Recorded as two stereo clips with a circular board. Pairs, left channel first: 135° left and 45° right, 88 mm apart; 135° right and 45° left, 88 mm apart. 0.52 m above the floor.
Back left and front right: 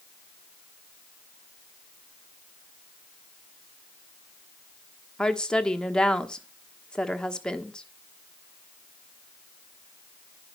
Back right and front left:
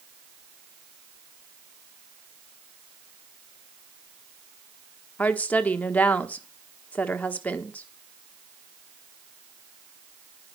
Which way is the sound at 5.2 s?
165° right.